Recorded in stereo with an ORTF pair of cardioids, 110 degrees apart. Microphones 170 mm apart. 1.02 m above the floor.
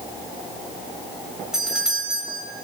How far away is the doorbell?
About 7 m.